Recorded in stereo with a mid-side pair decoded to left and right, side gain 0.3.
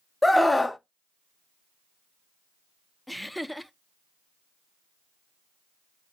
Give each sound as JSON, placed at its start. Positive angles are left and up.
{"t": 0.2, "sound": "a scream", "azimuth_deg": 15, "distance_m": 0.7}
{"t": 3.1, "sound": "laughter", "azimuth_deg": 0, "distance_m": 0.6}